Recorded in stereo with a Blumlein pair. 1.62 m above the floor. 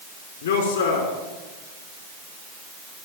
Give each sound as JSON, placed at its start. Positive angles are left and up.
{"t": 0.4, "sound": "a man speaking", "azimuth_deg": 65, "distance_m": 4.5}